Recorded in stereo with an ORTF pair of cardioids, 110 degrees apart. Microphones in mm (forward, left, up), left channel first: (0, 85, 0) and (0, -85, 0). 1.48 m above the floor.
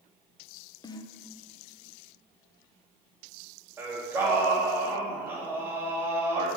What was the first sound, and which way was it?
A snare drum, 25° left.